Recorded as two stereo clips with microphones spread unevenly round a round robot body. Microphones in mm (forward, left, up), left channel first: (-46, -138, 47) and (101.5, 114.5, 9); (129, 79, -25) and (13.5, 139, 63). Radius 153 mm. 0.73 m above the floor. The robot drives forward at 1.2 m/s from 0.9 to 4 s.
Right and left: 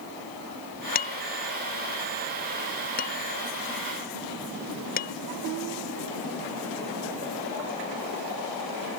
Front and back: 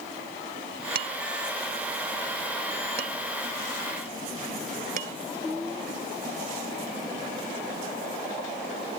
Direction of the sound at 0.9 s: Straight behind.